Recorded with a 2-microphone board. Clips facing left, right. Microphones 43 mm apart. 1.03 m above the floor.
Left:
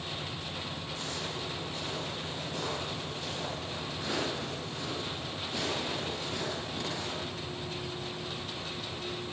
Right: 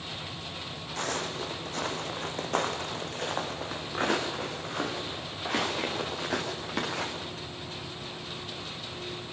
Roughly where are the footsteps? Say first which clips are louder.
Right 8 dB; right.